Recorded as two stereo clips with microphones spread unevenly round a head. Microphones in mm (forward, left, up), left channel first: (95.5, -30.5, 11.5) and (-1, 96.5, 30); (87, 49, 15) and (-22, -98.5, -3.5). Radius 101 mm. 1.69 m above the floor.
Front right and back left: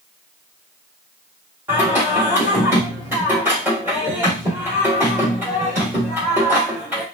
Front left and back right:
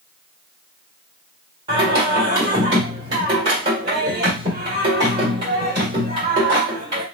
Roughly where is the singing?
Behind.